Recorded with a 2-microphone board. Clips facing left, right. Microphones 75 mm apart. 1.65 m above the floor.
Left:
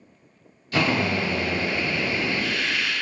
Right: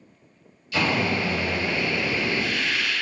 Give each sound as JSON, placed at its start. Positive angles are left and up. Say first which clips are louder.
{"t": 0.7, "sound": "a drill", "louder": "left 1 dB", "side_deg": 45, "distance_m": 1.4}